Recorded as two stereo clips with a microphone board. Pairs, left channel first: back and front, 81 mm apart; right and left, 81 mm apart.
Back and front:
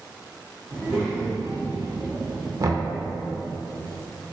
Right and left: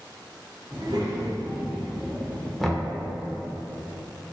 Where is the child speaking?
65° left, 1.2 m; by 2.5 s 35° right, 0.9 m.